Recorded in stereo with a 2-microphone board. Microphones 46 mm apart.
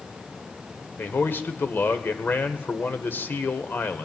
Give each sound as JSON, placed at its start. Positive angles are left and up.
{"t": 1.0, "sound": "a man speaking", "side_deg": 45, "distance_m": 1.3}